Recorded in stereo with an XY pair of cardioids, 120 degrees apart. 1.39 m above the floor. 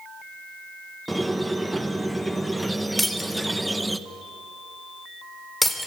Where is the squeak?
10° right, 0.9 m.